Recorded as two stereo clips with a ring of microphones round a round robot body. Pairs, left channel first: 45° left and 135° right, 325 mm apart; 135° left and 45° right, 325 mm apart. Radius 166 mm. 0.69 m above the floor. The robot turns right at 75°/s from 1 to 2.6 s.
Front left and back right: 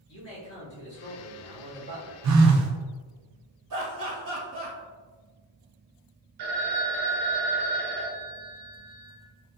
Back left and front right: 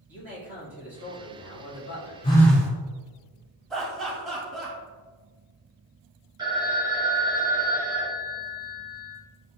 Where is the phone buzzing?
155° right, 0.5 m; by 2.7 s 130° right, 0.5 m.